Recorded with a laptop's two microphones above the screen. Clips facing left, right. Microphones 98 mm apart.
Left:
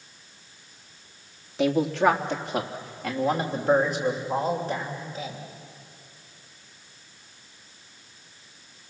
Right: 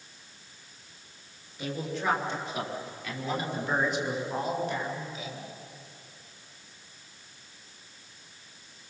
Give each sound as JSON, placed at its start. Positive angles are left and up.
{"t": 1.6, "sound": "a man speaking", "side_deg": 70, "distance_m": 1.5}